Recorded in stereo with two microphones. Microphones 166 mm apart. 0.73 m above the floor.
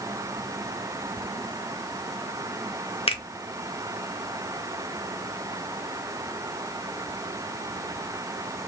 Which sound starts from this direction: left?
A finger snap, at 3.1 s.